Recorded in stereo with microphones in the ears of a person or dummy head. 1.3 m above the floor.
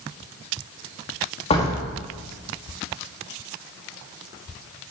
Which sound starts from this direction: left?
A door slam, at 1.5 s.